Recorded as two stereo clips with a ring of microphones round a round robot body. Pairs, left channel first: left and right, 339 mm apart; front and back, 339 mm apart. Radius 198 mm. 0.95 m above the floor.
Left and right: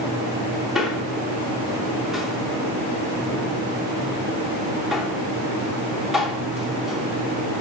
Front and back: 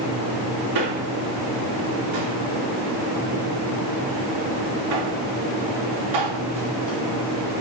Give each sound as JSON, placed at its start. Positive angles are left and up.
{"t": 0.8, "sound": "a man speaking", "azimuth_deg": 180, "distance_m": 2.5}